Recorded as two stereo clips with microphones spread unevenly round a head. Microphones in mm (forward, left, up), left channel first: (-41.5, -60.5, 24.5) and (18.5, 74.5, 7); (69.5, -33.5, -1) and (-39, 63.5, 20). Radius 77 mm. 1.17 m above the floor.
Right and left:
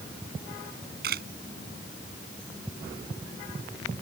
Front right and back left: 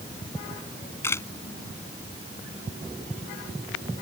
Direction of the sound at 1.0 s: 35° left.